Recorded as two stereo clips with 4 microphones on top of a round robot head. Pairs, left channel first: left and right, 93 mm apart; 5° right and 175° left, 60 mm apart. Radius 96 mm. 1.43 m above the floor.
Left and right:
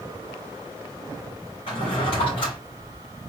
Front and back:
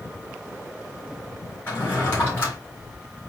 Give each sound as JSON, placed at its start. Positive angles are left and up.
{"t": 1.7, "sound": "a drawer", "azimuth_deg": 50, "distance_m": 3.0}